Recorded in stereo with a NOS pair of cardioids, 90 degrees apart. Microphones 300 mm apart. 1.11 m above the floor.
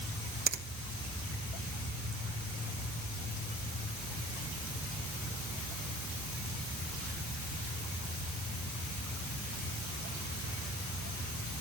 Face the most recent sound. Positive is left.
turn(degrees=-35)